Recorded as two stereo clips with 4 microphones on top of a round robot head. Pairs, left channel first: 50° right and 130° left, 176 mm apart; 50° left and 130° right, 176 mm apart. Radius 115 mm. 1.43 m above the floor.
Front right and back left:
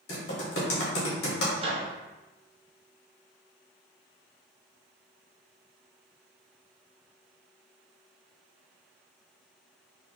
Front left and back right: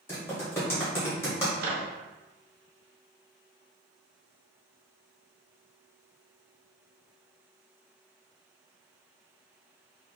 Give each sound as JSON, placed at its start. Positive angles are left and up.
{"t": 0.1, "sound": "typing on a keyboard", "azimuth_deg": -25, "distance_m": 0.7}
{"t": 1.6, "sound": "a microwave", "azimuth_deg": -170, "distance_m": 0.5}